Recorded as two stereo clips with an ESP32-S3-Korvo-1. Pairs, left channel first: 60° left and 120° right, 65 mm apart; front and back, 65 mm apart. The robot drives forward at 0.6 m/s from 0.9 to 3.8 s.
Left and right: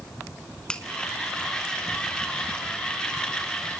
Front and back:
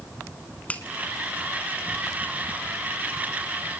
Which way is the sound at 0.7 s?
10° left.